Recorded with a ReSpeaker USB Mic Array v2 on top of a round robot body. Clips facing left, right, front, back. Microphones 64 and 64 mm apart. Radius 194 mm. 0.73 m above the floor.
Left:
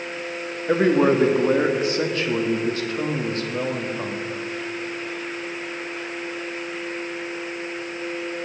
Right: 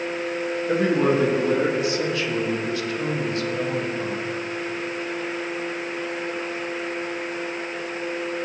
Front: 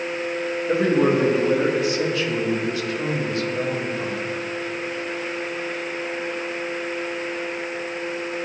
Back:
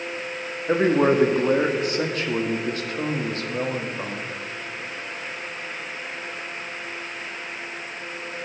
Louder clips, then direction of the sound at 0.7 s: Left 3 dB, even; 140° left.